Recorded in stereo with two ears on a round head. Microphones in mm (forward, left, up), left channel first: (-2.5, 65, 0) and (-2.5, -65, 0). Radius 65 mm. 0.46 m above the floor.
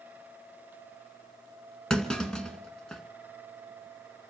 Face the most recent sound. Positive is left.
turn(degrees=5)  # may be behind; listen again after turning